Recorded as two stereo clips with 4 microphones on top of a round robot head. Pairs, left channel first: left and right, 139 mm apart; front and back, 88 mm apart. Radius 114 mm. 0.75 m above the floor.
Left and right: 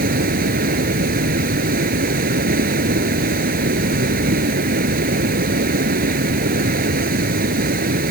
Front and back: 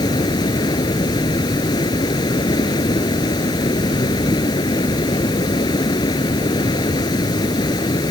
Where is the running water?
60° right.